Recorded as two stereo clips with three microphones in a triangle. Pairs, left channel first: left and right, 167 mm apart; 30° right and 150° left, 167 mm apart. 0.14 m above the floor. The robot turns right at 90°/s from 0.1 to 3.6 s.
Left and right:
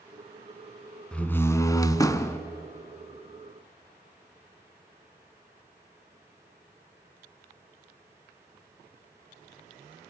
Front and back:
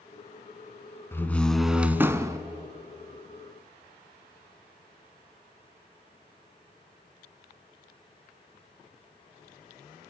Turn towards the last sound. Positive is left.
turn(degrees=-120)